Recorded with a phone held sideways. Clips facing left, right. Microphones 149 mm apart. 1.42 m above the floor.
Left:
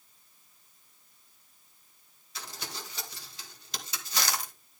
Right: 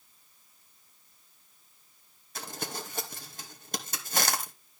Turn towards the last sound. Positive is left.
turn(degrees=-50)  # may be behind; listen again after turning